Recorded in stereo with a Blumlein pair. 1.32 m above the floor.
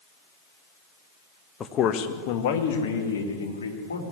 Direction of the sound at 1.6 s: 25° left.